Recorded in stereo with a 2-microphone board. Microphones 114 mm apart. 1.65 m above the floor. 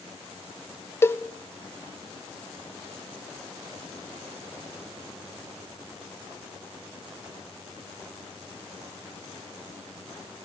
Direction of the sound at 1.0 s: 20° left (ahead or behind).